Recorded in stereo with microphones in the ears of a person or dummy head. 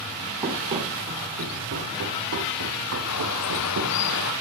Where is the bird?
80° left, 1.6 m.